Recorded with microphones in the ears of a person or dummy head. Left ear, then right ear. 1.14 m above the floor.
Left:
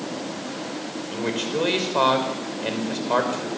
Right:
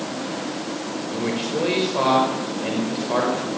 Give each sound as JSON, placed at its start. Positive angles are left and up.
{"t": 1.1, "sound": "a man speaking", "side_deg": 40, "distance_m": 5.5}